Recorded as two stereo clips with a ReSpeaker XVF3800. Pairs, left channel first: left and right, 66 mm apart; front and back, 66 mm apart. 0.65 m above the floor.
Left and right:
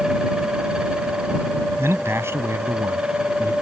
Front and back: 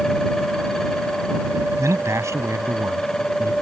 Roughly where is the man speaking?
Behind right.